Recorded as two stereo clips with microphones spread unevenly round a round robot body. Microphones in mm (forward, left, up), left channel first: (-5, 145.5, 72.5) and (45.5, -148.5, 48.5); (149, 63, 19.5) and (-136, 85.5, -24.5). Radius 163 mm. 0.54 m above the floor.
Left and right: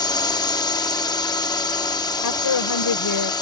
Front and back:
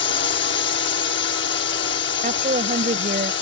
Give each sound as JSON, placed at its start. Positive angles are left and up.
{"t": 0.0, "sound": "a drone", "azimuth_deg": 25}
{"t": 2.2, "sound": "a woman speaking", "azimuth_deg": 115}